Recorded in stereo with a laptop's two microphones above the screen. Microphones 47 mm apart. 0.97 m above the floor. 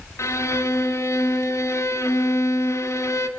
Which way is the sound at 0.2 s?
85° left.